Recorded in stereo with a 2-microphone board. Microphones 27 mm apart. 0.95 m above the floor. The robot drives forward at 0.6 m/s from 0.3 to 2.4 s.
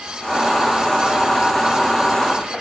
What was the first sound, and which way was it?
Only background noise.